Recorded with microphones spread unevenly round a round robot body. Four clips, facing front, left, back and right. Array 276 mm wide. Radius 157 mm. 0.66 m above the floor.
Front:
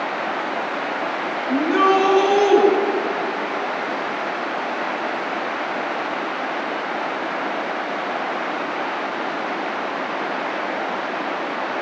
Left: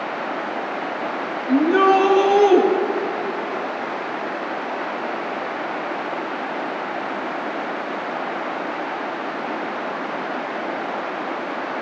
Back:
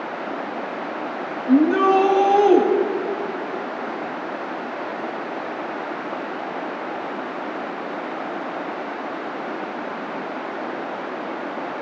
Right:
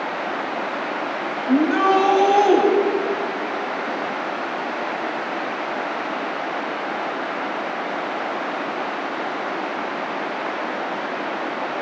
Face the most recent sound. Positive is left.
turn(degrees=-165)